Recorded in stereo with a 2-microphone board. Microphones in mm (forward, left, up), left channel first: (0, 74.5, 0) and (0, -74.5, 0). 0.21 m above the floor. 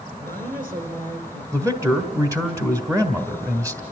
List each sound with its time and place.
0.2 s a woman speaking: 60° right (ahead or behind), 3.5 m
1.5 s a man speaking: 20° right (ahead or behind), 1.5 m